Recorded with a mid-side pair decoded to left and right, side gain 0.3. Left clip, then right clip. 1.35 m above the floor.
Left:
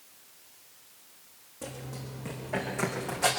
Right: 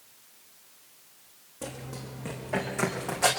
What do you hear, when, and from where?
1.6 s running footsteps: 45° right, 6.5 m; by 3.3 s 50° right, 5.5 m